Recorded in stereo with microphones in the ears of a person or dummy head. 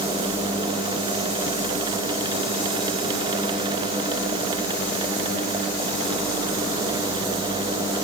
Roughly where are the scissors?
No scissors in this recording.